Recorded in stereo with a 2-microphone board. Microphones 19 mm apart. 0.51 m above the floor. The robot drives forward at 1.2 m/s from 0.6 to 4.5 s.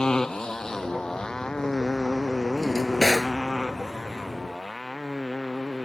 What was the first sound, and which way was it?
A motorcycle, 45° left (ahead or behind).